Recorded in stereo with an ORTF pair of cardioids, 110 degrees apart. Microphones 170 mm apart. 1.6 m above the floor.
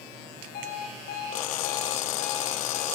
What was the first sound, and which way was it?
An alarm clock, 65° left.